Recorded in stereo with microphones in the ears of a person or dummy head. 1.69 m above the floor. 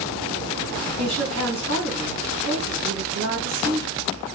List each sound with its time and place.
1.0 s a woman speaking: 75° right (ahead or behind), 3.5 m